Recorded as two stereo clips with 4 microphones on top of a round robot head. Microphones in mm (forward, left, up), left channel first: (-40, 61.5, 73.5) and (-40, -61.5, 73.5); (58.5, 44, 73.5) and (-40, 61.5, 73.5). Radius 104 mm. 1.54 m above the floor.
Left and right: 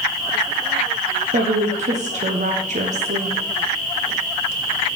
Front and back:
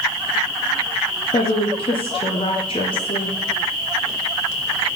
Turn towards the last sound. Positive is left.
turn(degrees=-55)